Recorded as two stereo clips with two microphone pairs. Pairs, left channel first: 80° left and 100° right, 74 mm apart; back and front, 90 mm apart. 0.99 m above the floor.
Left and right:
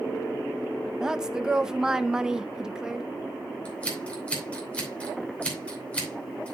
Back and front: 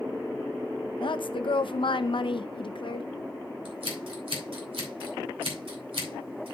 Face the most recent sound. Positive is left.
turn(degrees=5)